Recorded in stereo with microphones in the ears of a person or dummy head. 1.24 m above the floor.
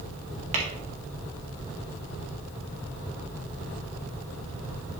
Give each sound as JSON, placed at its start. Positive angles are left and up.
{"t": 0.5, "sound": "tapping", "side_deg": -35, "distance_m": 1.7}